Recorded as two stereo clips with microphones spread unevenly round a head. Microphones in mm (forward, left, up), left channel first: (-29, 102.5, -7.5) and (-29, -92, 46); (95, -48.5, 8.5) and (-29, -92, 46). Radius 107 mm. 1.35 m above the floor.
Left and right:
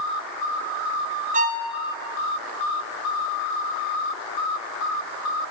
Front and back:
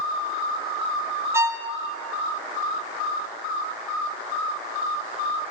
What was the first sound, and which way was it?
A violin, 110° right.